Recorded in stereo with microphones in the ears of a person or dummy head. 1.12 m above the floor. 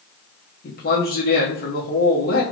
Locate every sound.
0.6 s a man speaking: 50° left (ahead or behind), 0.7 m